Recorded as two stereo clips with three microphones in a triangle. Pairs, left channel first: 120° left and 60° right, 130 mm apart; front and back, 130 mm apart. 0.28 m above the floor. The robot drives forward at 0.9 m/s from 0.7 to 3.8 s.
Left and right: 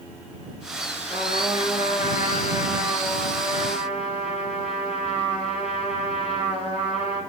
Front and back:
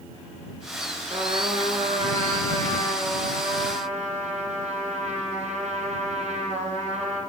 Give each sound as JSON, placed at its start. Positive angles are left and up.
{"t": 1.1, "sound": "a trumpet", "azimuth_deg": 130, "distance_m": 2.5}